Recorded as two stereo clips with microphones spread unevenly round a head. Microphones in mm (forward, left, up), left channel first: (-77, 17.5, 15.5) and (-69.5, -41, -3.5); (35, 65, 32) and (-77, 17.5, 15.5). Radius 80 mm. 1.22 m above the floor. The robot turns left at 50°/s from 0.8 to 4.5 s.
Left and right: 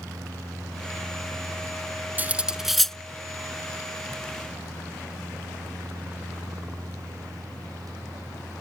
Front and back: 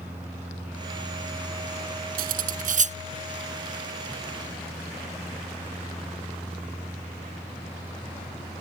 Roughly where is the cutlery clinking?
Behind right.